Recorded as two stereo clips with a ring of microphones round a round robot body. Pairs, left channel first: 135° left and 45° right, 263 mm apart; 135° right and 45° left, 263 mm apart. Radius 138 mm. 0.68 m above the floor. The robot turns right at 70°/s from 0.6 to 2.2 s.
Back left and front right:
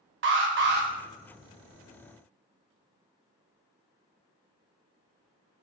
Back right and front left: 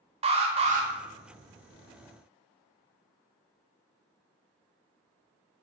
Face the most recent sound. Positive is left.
turn(degrees=95)